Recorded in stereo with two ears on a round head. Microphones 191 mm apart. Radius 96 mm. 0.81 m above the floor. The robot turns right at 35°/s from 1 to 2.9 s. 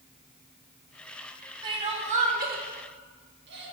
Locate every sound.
1.6 s crying: 20° right (ahead or behind), 1.2 m; by 3.7 s 55° right (ahead or behind), 1.2 m